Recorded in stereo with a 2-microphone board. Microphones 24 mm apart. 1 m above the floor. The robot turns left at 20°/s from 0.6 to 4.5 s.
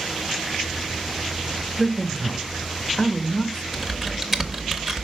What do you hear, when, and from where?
1.8 s a man speaking: 170° right, 1.1 m; by 3.6 s 150° left, 1.1 m
3.7 s typing on a keyboard: 10° right (ahead or behind), 0.9 m; by 5.0 s 25° right (ahead or behind), 0.9 m